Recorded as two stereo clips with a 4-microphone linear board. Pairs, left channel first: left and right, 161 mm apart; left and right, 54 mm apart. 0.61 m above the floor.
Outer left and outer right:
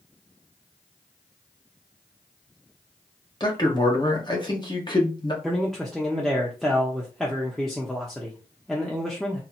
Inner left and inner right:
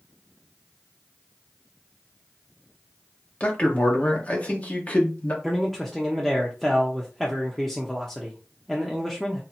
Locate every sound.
3.4 s a man speaking: 30° left (ahead or behind), 1.3 m
5.4 s a man speaking: centre (ahead or behind), 0.8 m